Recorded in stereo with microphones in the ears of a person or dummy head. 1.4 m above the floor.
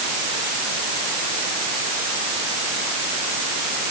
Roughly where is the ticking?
I don't hear ticking.